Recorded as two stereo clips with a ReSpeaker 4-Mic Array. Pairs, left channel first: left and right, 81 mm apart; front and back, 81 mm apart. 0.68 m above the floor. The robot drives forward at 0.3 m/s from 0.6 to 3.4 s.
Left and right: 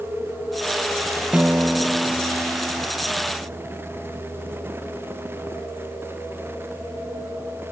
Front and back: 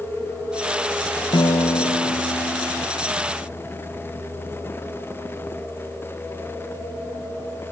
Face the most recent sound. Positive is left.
turn(degrees=-15)